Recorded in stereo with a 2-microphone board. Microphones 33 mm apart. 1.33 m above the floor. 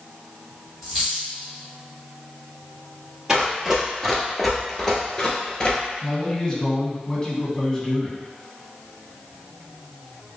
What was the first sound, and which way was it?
A dropped coin, 5° right (ahead or behind).